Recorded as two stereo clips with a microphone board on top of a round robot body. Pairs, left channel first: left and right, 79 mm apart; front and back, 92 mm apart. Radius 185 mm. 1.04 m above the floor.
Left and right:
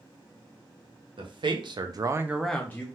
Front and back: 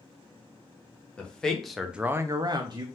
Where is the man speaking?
80° right, 1.0 m; by 2.9 s 145° left, 0.6 m.